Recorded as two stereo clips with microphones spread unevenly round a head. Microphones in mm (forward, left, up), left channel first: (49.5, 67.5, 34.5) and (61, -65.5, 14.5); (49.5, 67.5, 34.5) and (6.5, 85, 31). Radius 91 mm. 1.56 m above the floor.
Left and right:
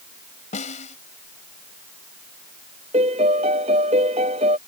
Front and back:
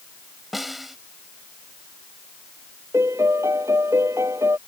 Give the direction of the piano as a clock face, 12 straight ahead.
5 o'clock.